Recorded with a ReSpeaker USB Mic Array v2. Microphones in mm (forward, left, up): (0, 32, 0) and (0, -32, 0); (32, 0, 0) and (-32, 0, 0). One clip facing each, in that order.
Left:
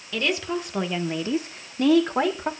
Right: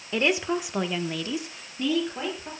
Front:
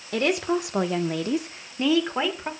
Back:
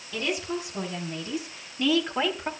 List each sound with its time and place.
0.1 s a woman speaking: 30° right, 2.0 m; by 2.5 s 80° left, 2.5 m